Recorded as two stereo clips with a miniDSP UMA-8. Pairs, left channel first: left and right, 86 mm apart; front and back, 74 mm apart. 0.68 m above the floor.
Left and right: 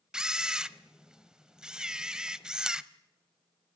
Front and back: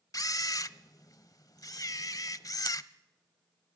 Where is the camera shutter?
10° right, 0.7 m.